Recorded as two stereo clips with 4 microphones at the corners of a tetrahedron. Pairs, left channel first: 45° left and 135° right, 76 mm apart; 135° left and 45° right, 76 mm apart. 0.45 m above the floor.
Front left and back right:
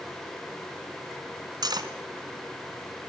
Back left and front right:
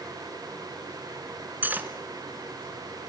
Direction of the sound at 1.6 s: 110° right.